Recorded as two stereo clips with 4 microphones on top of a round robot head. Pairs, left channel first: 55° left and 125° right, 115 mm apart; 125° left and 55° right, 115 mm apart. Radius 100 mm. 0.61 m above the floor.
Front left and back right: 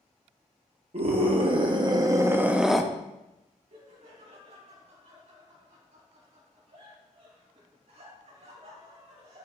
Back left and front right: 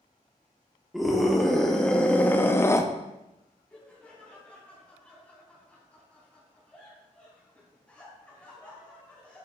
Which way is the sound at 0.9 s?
140° right.